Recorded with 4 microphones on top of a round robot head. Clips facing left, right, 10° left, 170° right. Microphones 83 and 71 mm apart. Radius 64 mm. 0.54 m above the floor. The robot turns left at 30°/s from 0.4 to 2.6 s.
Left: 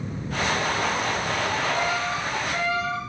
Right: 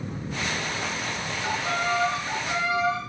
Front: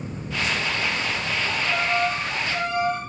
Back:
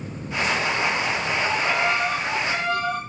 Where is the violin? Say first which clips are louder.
Right 1 dB, back 3 dB; 130° right, 6 m; by 3.0 s 165° right, 6 m.